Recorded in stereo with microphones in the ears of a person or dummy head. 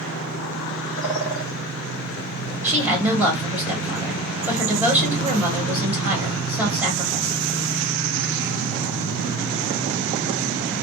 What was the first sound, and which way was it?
A bird, centre (ahead or behind).